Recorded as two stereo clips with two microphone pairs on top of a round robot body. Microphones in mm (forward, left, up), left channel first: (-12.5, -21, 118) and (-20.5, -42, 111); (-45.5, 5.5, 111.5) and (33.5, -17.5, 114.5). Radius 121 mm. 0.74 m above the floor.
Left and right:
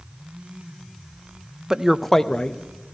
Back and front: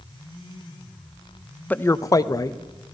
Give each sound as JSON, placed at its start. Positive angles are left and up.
{"t": 1.7, "sound": "a man speaking", "azimuth_deg": -135, "distance_m": 0.6}